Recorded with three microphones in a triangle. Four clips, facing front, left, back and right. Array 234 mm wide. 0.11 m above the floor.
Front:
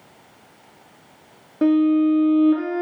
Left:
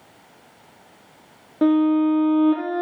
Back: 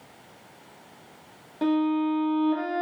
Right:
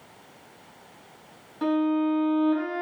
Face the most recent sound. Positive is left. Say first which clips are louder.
# left 7 dB, front 7 dB
turn(degrees=65)